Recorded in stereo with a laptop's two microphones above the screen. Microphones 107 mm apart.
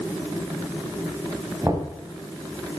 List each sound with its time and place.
1.6 s knocking: 30° right (ahead or behind), 4.5 m